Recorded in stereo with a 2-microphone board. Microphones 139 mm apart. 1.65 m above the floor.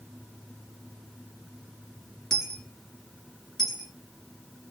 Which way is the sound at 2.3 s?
Centre (ahead or behind).